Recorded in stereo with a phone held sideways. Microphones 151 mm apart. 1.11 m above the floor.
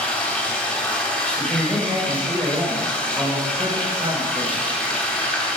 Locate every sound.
0.0 s running water: 10° left (ahead or behind), 2 m
1.4 s a man speaking: 25° right (ahead or behind), 4 m